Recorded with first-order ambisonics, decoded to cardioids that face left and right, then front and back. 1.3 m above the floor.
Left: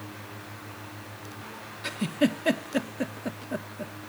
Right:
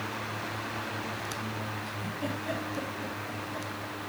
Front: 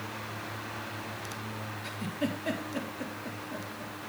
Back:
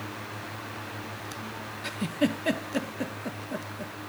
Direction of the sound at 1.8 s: 115° left.